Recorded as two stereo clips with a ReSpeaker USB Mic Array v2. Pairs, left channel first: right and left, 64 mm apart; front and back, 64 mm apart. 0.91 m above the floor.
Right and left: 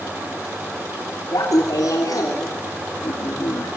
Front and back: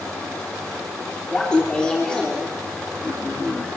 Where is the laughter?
75° right, 3 m.